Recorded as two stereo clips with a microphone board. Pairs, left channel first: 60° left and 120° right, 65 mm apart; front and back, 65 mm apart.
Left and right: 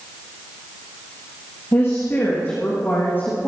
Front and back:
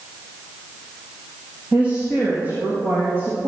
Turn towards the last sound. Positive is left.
turn(degrees=120)